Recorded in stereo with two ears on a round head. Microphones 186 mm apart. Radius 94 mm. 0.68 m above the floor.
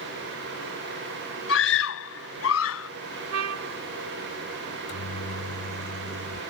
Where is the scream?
70° left (ahead or behind); by 2.9 s 75° left (ahead or behind).